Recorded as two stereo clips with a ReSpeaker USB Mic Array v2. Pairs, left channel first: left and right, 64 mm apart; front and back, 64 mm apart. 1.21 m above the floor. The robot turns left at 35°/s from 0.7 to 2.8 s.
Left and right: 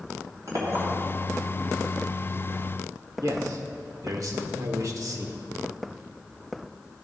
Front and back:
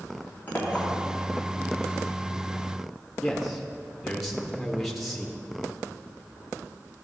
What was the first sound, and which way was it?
A clink, 60° right.